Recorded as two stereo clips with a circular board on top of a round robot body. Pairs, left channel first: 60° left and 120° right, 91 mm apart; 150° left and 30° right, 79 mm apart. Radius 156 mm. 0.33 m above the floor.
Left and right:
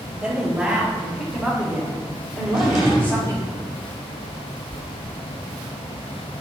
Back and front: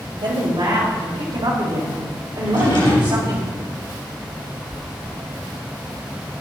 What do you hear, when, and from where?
0.2 s a woman speaking: 40° right, 3 m; by 3.4 s 5° left, 2.5 m
2.4 s a drawer: 155° left, 4 m
4.7 s chewing: 55° left, 1.0 m